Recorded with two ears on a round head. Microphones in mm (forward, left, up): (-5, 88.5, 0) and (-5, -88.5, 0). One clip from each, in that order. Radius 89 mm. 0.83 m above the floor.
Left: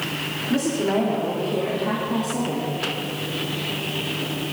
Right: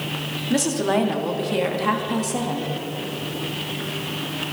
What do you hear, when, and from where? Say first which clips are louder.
0.5 s a woman speaking: right 2 dB; 65° right (ahead or behind), 2 m; by 2.7 s 35° right (ahead or behind), 1.6 m